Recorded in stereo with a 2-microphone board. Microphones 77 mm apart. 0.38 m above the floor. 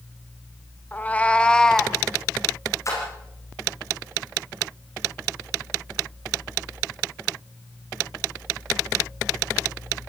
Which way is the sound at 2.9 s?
40° left (ahead or behind).